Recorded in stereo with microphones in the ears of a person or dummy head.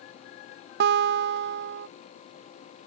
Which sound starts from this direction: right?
A guitar, at 0.8 s.